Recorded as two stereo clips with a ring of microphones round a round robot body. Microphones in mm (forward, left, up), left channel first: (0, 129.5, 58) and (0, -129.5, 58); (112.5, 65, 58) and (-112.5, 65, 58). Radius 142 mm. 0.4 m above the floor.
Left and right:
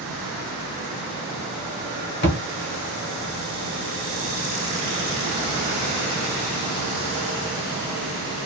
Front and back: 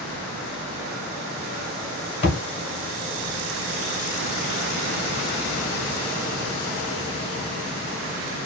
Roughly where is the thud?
Ahead left.